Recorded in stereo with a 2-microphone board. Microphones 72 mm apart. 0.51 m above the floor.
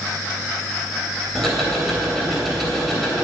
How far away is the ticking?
About 3 m.